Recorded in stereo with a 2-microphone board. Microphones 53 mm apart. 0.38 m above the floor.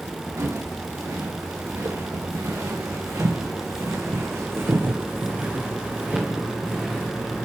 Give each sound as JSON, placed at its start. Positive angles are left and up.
{"t": 0.4, "sound": "footsteps", "side_deg": -75, "distance_m": 3.0}